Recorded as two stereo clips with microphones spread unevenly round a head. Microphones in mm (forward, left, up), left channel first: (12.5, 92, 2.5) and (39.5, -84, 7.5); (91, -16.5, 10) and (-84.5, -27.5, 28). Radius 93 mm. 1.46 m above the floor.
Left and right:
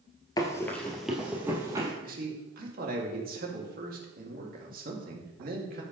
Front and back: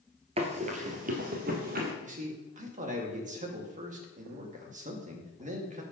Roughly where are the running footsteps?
Behind.